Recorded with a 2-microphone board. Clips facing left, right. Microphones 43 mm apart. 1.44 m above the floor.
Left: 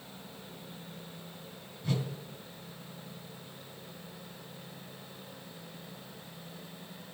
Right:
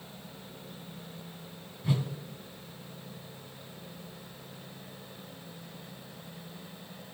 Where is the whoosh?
20° right (ahead or behind), 3 m.